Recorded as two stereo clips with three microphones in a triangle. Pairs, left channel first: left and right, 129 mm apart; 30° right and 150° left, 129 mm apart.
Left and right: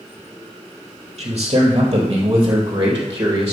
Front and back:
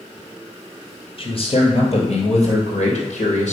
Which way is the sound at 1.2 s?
60° right.